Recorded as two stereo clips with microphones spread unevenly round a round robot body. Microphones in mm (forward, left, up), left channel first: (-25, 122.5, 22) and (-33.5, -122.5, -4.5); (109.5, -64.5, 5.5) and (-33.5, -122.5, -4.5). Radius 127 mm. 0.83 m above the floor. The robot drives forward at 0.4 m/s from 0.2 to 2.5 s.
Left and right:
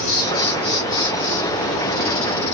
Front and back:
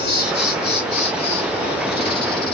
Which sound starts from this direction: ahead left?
An insect, at 0.0 s.